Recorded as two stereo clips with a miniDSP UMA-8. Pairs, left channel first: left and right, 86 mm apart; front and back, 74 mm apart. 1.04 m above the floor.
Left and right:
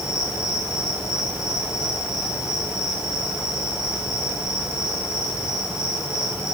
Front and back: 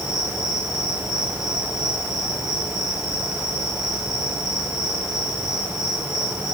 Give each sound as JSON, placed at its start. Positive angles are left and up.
{"t": 0.0, "sound": "an insect", "azimuth_deg": 40, "distance_m": 8.0}